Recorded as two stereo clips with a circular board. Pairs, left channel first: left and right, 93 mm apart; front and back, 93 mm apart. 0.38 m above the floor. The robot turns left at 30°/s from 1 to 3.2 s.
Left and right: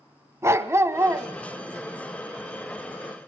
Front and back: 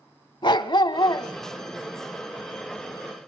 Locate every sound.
0.4 s a dog barking: 30° right, 1.0 m; by 1.3 s 40° right, 1.0 m